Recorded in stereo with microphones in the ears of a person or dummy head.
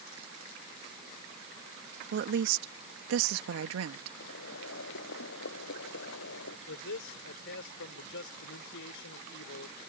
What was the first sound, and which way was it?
A woman speaking, 60° right (ahead or behind).